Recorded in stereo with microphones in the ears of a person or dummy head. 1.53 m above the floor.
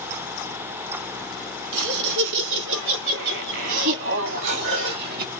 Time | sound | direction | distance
1.7 | laughter | 75° right (ahead or behind) | 3 m
4.2 | dishes clattering | 80° right | 3.5 m